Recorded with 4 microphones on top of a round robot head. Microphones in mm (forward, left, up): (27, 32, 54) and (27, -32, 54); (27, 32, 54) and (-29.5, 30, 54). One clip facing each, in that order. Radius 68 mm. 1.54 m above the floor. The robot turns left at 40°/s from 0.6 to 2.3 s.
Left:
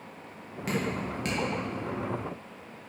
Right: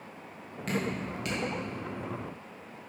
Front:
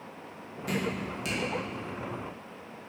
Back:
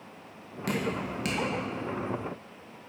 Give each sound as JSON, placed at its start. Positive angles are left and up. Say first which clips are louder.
{"t": 0.7, "sound": "dripping", "louder": "left 1 dB, back 1 dB", "azimuth_deg": 175, "distance_m": 2.5}